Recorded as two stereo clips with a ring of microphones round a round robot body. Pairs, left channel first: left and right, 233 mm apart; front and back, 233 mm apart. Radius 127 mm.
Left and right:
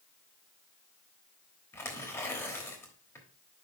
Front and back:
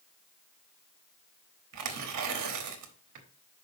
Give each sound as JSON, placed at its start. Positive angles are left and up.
{"t": 1.7, "sound": "tearing paper", "azimuth_deg": 170, "distance_m": 1.1}